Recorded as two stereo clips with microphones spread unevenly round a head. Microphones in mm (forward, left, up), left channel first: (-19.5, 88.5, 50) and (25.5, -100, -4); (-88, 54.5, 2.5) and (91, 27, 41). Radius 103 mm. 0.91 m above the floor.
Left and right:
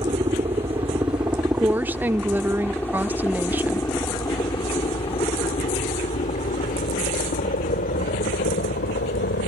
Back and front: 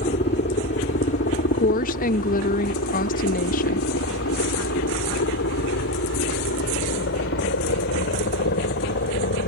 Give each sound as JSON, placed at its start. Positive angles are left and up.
{"t": 0.0, "sound": "a helicopter", "azimuth_deg": -140}
{"t": 1.5, "sound": "a woman speaking", "azimuth_deg": -150}